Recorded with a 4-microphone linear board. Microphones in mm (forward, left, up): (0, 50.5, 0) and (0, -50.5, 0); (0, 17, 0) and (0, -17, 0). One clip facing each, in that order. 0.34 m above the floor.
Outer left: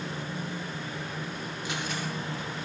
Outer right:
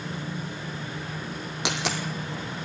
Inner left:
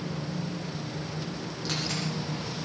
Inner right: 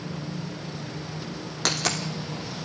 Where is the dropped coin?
85° right, 2.5 m.